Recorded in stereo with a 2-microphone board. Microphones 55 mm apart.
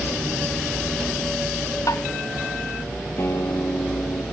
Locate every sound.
1.9 s tapping: 75° left (ahead or behind)
3.2 s a guitar: 60° left (ahead or behind)